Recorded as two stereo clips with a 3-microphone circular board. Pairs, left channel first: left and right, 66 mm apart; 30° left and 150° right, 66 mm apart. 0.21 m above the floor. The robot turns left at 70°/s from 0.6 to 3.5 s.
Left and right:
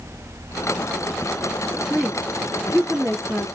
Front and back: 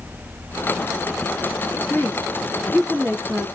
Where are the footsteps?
No footsteps in this recording.